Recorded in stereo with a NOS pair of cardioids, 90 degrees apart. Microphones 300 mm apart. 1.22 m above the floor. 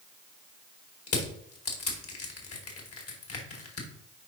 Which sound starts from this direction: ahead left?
Crushing, at 1.1 s.